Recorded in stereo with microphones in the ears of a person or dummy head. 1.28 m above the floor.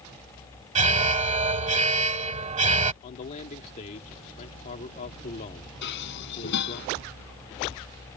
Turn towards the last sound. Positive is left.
turn(degrees=60)  # may be behind; listen again after turning